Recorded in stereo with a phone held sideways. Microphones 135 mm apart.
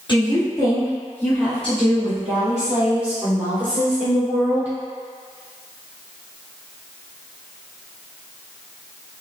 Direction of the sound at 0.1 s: 35° left (ahead or behind).